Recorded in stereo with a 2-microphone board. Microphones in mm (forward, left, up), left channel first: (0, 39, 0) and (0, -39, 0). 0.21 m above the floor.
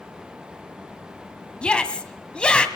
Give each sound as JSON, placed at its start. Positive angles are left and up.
{"t": 1.6, "sound": "a shout", "side_deg": 10, "distance_m": 1.5}